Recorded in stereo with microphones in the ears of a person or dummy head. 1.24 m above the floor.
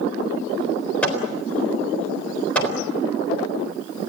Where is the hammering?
15° left (ahead or behind), 4 m.